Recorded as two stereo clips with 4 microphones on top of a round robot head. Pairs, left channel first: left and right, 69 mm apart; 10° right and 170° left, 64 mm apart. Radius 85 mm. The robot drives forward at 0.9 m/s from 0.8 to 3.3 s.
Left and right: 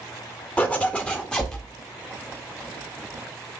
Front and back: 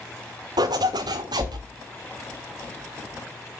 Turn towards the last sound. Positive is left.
turn(degrees=175)